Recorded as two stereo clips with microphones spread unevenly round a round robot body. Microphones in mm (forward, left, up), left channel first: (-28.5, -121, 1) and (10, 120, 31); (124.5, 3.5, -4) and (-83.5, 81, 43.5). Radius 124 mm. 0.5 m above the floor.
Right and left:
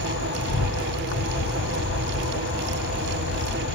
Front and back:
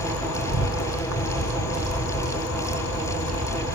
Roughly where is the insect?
Ahead right.